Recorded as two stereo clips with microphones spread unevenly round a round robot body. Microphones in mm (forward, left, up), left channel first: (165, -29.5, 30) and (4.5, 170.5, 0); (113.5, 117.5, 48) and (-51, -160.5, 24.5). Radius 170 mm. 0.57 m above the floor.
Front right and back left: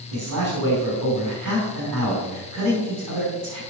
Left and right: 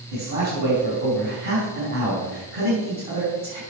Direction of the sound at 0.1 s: 175° left.